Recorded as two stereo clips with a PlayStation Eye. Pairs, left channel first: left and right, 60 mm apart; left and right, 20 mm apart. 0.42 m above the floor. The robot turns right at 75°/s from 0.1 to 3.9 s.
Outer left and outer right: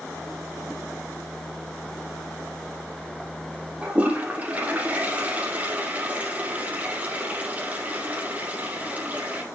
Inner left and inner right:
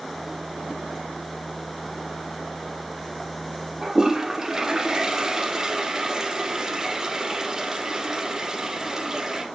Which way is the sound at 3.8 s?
20° right (ahead or behind).